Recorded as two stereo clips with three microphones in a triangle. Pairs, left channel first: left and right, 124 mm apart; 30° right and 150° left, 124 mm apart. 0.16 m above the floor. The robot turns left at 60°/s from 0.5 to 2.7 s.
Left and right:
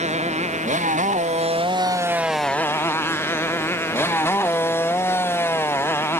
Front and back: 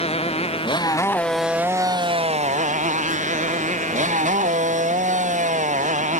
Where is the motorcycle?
65° right; by 6.2 s 160° left.